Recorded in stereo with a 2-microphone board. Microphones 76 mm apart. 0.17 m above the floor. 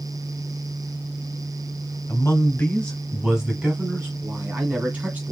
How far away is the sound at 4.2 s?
About 1.7 m.